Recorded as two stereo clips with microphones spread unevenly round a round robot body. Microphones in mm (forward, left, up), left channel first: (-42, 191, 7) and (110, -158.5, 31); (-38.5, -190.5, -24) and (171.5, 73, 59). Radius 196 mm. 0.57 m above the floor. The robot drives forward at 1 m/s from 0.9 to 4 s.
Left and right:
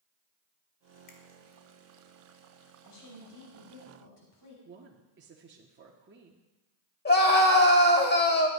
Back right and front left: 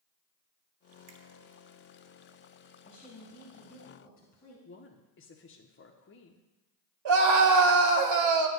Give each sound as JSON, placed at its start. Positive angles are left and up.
{"t": 1.1, "sound": "a finger snap", "azimuth_deg": 55, "distance_m": 1.6}
{"t": 2.9, "sound": "a woman speaking", "azimuth_deg": 150, "distance_m": 4.0}
{"t": 4.7, "sound": "a woman speaking", "azimuth_deg": -125, "distance_m": 0.8}
{"t": 7.0, "sound": "a scream", "azimuth_deg": 50, "distance_m": 2.5}